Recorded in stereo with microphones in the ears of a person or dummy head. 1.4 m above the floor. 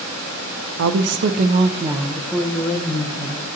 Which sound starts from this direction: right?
A woman speaking, at 0.8 s.